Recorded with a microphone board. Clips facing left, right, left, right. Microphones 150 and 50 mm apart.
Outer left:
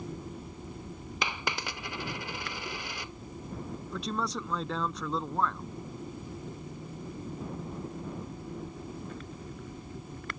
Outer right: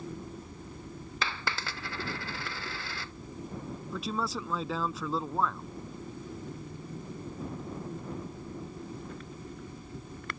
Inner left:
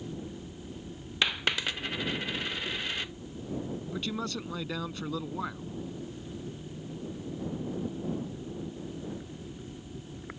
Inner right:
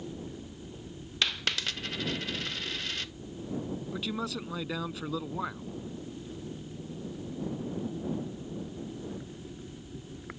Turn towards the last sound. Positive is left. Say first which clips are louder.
# even, inner left 1 dB
turn(degrees=-5)  # may be behind; listen again after turning